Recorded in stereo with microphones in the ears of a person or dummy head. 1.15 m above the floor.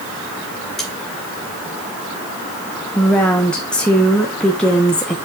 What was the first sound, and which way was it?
Cutlery clinking, centre (ahead or behind).